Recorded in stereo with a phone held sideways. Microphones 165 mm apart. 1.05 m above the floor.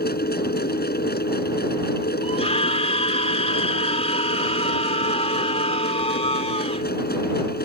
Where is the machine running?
75° left (ahead or behind).